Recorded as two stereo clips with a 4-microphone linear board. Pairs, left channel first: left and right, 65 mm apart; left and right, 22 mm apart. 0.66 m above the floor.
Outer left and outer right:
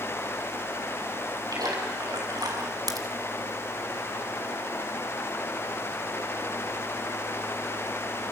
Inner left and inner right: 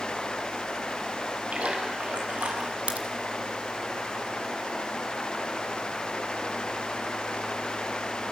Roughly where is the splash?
Right.